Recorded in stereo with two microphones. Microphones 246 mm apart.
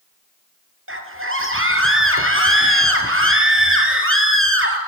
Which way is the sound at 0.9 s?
55° right (ahead or behind).